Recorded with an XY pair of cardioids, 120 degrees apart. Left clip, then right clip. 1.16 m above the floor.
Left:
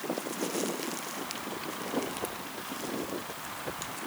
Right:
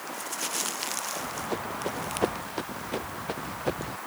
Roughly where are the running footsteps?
Ahead right.